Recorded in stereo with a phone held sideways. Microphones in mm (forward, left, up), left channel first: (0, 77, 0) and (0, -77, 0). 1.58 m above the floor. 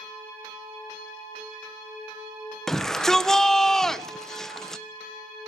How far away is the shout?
About 1.2 m.